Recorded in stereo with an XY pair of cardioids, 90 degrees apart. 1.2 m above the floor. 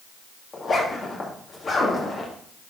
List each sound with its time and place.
0.5 s a zipper: 50° left, 2 m